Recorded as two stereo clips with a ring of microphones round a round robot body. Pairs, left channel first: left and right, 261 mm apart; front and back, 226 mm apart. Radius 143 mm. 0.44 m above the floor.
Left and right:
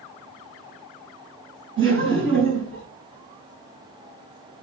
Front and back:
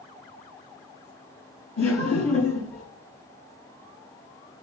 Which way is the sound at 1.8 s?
45° right.